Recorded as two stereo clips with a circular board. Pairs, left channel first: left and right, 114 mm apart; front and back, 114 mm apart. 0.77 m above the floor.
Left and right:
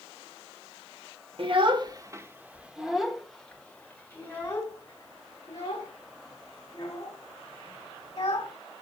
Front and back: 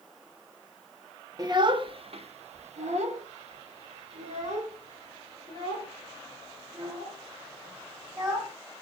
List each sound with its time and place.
1.4 s a child speaking: 125° right, 1.1 m; by 8.5 s 140° left, 5 m